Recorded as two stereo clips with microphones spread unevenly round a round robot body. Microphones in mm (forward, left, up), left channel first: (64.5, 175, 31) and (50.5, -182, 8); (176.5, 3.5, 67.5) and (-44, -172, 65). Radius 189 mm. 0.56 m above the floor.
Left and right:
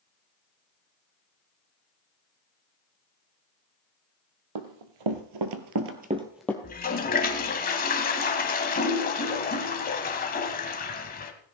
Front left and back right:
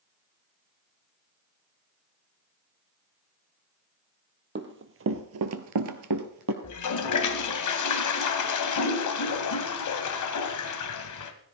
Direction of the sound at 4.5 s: 90° right.